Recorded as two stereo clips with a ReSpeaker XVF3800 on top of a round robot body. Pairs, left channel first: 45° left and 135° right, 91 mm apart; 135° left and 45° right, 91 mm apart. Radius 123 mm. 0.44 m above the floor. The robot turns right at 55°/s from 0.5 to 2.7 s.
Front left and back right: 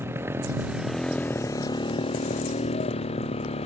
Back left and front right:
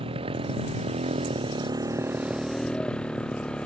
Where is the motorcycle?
65° right; by 3.7 s 55° left.